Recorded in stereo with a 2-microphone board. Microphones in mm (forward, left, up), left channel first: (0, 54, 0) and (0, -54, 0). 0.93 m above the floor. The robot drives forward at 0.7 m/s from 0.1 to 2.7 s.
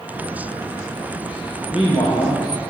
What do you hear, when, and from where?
1.7 s a man speaking: 55° left (ahead or behind), 1.0 m; by 2.7 s 45° left (ahead or behind), 1.2 m